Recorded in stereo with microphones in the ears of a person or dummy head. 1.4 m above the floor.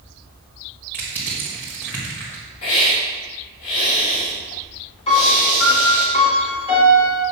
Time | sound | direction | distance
0.9 | crushing | 5° left (ahead or behind) | 1.6 m
2.6 | a hiss | 75° left (ahead or behind) | 3 m
5.1 | a piano | 30° left (ahead or behind) | 1.5 m